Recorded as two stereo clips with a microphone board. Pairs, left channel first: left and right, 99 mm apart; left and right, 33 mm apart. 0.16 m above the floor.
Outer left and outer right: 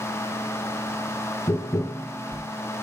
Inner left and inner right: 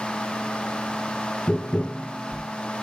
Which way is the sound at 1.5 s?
35° left (ahead or behind).